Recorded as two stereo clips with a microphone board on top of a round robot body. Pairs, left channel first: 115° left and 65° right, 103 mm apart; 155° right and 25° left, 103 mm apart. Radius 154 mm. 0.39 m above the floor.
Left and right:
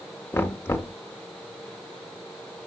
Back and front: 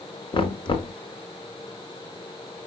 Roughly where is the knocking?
Behind.